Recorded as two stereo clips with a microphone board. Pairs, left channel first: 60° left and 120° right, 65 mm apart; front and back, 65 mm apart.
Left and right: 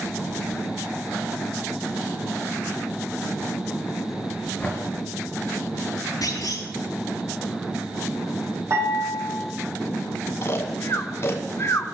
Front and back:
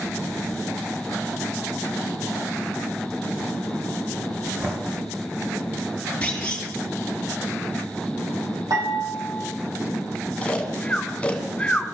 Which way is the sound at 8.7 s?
160° right.